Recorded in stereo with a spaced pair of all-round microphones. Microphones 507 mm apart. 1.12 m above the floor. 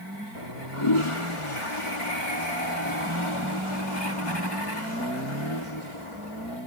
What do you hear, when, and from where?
0.3 s a toilet flushing: 80° left